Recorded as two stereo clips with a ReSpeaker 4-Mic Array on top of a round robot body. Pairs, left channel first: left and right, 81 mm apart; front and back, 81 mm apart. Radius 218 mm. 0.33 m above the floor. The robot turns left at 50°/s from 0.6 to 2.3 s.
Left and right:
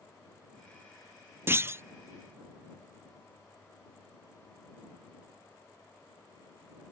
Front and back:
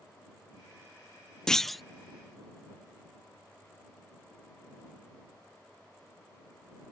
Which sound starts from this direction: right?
A clunk, at 1.5 s.